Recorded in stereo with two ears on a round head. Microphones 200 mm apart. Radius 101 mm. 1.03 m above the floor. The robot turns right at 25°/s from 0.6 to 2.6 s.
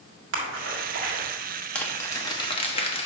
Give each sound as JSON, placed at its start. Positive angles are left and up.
{"t": 0.3, "sound": "a splash", "side_deg": -65, "distance_m": 1.7}
{"t": 1.8, "sound": "crumpling", "side_deg": 5, "distance_m": 1.0}